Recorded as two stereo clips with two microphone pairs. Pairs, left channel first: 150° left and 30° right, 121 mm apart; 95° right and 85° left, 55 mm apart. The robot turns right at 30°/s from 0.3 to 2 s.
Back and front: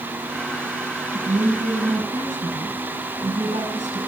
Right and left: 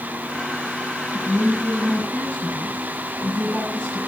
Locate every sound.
1.1 s a woman speaking: 55° right, 6 m; by 4.0 s 30° right, 6 m